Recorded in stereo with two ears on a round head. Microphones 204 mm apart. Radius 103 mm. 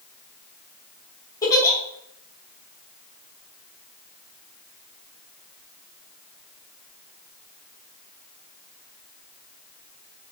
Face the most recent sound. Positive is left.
turn(degrees=15)  # may be behind; listen again after turning